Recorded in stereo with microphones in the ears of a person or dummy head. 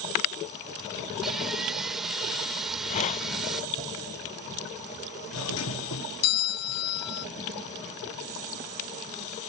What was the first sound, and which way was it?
Sawing, centre (ahead or behind).